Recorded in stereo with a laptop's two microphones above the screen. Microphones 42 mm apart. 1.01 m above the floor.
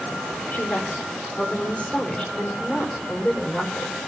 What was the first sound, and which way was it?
A woman speaking, 55° left (ahead or behind).